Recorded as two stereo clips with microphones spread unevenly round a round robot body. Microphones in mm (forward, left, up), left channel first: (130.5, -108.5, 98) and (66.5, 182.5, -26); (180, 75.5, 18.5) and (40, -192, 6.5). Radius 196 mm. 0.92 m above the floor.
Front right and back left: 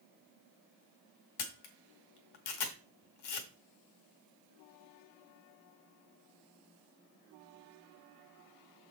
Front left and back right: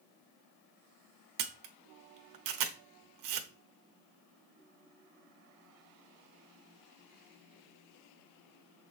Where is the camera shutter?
100° right, 1.1 m.